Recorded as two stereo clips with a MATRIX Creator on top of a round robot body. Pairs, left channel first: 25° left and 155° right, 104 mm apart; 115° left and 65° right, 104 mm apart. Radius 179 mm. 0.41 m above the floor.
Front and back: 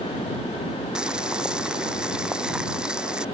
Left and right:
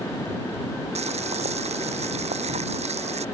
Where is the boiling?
75° right.